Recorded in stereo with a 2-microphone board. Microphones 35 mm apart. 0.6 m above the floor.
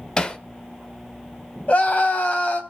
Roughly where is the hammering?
Left.